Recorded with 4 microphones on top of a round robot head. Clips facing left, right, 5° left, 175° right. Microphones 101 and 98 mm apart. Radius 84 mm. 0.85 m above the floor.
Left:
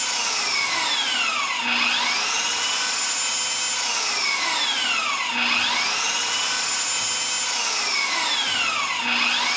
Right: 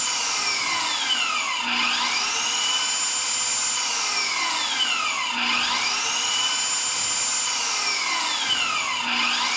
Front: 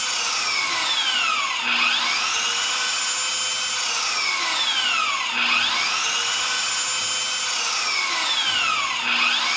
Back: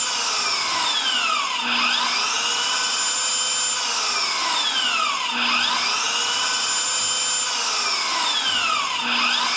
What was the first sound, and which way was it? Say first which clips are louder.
An engine running: left 1 dB, back 2 dB; 125° left.